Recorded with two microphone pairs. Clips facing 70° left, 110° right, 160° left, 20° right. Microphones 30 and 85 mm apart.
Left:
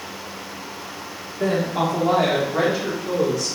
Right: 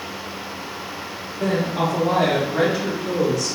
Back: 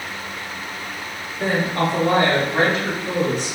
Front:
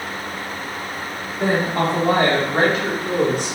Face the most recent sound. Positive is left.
turn(degrees=-20)